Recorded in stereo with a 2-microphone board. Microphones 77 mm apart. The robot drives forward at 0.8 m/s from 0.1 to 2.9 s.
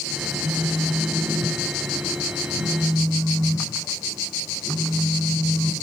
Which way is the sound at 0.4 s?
55° left (ahead or behind).